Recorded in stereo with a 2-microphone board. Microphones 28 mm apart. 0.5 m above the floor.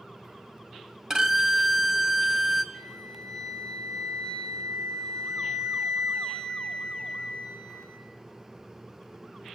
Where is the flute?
15° left (ahead or behind), 4.5 m.